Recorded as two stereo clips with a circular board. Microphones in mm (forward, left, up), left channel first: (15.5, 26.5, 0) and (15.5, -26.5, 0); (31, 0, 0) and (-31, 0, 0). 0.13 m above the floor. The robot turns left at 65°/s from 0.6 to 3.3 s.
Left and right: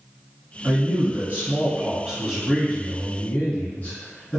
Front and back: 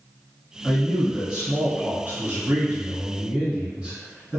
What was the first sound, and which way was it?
A man speaking, 65° right.